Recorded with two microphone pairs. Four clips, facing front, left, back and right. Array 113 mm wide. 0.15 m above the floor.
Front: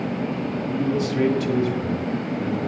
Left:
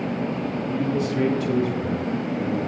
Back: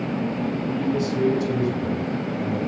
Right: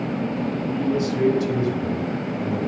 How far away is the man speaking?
About 1.7 m.